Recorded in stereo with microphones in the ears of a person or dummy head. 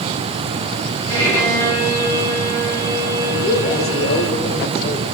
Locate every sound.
1.1 s a violin: 20° left (ahead or behind), 5 m
3.3 s a man speaking: 45° left (ahead or behind), 1.5 m